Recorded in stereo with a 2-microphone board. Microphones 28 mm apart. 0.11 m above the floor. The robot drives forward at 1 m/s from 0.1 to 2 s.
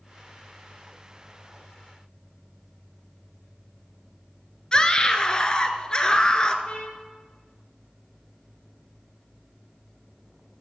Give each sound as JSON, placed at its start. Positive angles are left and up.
{"t": 4.7, "sound": "a scream", "side_deg": 30, "distance_m": 1.3}
{"t": 6.7, "sound": "a trumpet", "side_deg": 35, "distance_m": 3.0}